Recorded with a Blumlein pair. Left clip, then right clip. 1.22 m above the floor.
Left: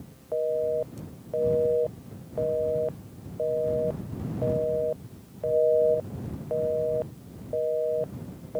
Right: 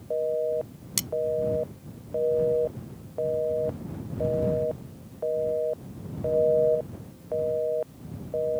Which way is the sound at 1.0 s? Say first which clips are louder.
Right 14 dB; 45° right.